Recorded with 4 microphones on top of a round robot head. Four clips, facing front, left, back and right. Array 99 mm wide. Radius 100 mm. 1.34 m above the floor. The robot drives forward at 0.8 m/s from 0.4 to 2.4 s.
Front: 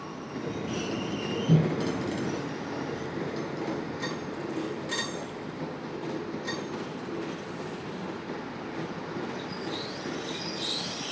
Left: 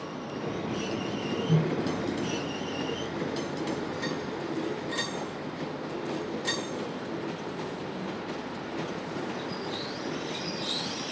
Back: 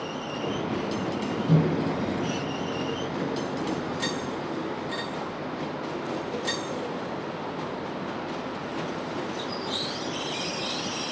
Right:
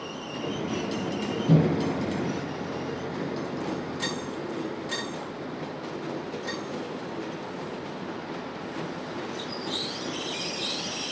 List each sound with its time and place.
1.5 s a microwave: 90° right, 0.5 m; by 4.3 s 150° right, 0.9 m